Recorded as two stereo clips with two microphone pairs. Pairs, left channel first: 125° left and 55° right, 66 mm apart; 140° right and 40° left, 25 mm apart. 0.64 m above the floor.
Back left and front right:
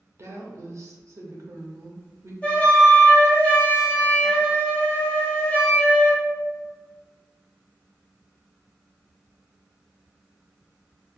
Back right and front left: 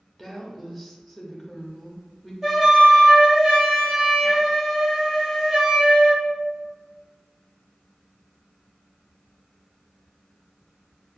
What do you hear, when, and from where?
0.2 s a woman speaking: 45° right, 0.7 m
2.4 s a flute: 85° left, 0.8 m